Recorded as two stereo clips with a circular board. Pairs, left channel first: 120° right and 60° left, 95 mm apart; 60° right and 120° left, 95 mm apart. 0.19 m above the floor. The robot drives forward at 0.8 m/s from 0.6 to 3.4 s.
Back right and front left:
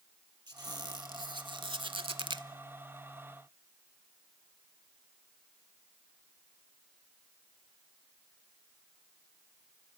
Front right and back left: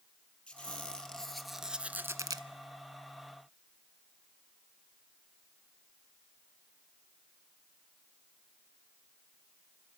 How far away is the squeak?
About 1.6 m.